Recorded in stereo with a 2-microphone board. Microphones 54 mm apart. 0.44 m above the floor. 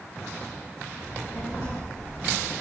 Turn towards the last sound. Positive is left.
turn(degrees=55)  # may be behind; listen again after turning